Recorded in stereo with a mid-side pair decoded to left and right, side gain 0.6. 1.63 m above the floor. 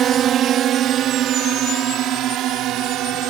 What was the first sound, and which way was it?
A drone, 50° right.